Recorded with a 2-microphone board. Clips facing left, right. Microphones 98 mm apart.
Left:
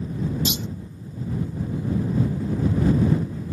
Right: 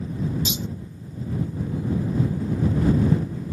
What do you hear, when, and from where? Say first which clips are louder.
0.5 s a clunk: left 2 dB; 65° left (ahead or behind)